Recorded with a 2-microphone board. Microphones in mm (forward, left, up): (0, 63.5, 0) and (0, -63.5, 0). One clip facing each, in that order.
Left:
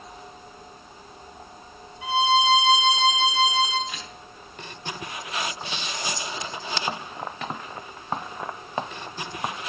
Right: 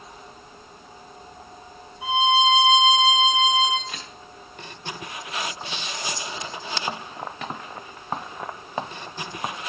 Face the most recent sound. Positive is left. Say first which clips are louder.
# even
turn(degrees=-50)  # may be behind; listen again after turning